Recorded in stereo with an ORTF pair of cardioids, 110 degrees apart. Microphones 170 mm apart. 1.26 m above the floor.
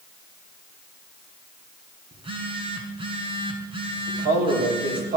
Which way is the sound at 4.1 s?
65° right.